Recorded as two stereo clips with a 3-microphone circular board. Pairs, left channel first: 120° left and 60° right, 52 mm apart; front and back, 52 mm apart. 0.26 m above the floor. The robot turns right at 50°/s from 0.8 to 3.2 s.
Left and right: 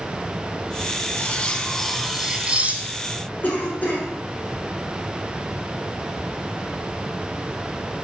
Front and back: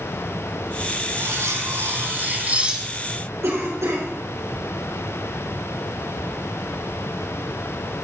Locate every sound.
1.2 s cutlery clinking: 170° left, 1.1 m; by 3.3 s 90° right, 1.1 m
3.4 s a cough: 170° left, 3.5 m